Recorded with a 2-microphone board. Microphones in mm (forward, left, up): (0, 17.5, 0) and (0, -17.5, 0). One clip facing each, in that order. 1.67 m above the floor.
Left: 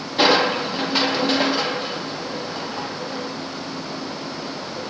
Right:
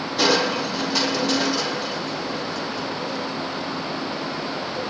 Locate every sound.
0.2 s crushing: 25° left (ahead or behind), 0.7 m